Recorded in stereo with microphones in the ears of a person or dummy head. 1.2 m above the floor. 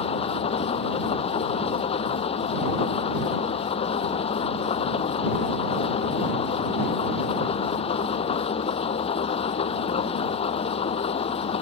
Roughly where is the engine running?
Left.